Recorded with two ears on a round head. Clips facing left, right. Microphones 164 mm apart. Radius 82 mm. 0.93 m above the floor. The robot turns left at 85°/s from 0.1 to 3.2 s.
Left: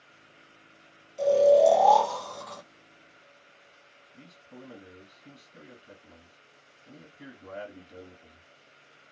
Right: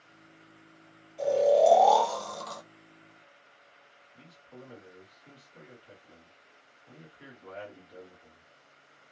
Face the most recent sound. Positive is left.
turn(degrees=40)  # may be behind; listen again after turning